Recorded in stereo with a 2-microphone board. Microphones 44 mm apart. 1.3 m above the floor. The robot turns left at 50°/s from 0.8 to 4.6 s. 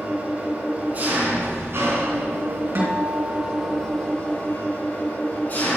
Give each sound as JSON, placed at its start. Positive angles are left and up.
{"t": 0.0, "sound": "an engine running", "azimuth_deg": -30, "distance_m": 3.5}
{"t": 2.8, "sound": "a guitar", "azimuth_deg": -85, "distance_m": 3.5}